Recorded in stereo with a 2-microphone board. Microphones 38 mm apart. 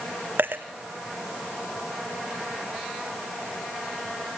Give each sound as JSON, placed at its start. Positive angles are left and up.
{"t": 0.4, "sound": "a dropped coin", "side_deg": -60, "distance_m": 1.0}